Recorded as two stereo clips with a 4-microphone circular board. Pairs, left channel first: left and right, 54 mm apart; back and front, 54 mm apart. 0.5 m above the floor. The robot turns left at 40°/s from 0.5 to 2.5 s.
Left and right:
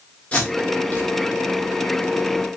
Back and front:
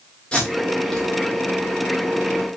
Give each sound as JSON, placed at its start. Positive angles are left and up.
{"t": 0.3, "sound": "tape being pulled", "azimuth_deg": 130, "distance_m": 1.5}